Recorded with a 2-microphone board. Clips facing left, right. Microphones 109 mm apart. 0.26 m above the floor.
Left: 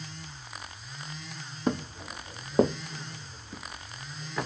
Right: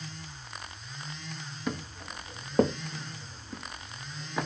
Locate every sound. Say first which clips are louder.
1.7 s footsteps: left 6 dB; 35° left (ahead or behind), 0.6 m; by 4.5 s 10° right (ahead or behind), 1.9 m